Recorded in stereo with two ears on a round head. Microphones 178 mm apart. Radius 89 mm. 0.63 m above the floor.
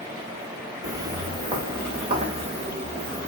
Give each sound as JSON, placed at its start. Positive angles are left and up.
{"t": 0.8, "sound": "footsteps", "side_deg": -15, "distance_m": 2.0}